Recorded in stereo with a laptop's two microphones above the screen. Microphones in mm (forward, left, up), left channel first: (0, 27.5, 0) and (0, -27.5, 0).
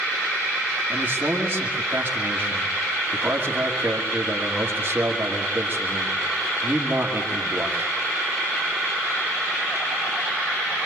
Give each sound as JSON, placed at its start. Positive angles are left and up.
{"t": 0.9, "sound": "a man speaking", "side_deg": -35, "distance_m": 2.5}